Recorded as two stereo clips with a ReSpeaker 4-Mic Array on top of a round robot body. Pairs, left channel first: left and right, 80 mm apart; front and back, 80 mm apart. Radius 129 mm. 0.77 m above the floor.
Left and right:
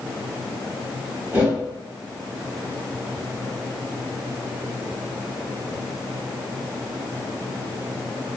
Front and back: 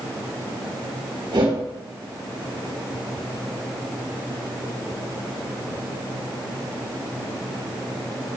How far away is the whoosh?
About 3 m.